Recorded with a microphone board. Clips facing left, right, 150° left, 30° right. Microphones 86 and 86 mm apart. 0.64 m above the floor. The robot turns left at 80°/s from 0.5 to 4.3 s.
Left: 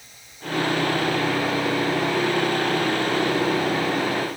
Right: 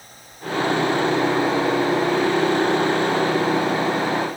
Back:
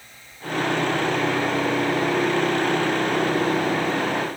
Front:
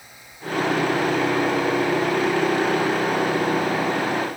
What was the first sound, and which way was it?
Only background noise.